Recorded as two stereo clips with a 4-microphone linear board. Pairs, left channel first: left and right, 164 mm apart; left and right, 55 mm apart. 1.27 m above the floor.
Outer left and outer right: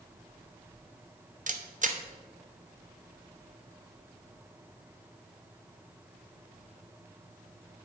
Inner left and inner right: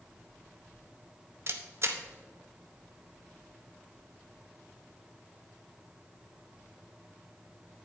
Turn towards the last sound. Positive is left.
turn(degrees=-50)  # may be behind; listen again after turning